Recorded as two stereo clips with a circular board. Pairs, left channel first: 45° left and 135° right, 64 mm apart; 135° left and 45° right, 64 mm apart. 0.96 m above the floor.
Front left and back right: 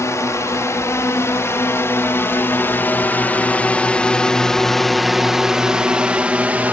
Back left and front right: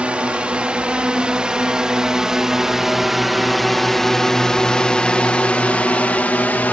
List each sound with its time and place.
0.0 s a drone: 25° left; by 6.8 s straight behind